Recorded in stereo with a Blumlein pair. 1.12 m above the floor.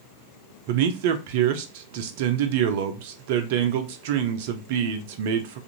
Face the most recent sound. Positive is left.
turn(degrees=-50)